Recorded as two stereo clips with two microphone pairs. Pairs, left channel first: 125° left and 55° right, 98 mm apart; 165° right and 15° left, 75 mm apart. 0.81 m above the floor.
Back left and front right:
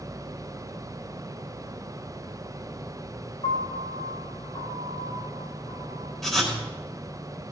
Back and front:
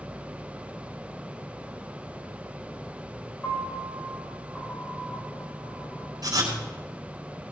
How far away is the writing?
About 4 m.